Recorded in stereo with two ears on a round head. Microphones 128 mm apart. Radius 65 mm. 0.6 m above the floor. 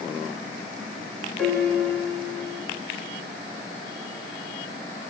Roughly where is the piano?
Centre.